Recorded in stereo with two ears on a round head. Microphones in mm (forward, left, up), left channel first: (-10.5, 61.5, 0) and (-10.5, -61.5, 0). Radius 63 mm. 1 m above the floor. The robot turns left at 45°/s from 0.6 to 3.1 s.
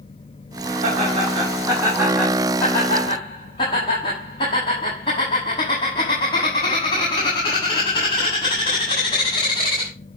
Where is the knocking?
I don't hear knocking.